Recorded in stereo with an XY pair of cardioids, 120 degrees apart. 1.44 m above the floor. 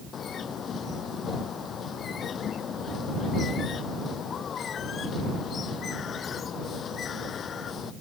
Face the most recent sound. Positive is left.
turn(degrees=45)